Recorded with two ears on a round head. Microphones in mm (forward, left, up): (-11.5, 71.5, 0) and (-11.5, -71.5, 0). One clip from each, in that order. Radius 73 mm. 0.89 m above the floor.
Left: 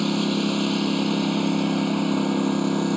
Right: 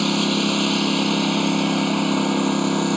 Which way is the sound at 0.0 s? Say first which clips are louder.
Right 4 dB; 30° right (ahead or behind).